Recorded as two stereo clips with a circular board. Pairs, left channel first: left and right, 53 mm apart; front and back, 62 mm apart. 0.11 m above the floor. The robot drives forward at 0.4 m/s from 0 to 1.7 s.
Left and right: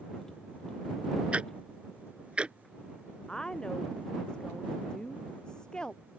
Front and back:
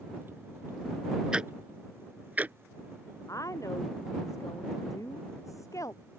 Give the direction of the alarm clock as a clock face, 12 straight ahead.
I don't hear an alarm clock.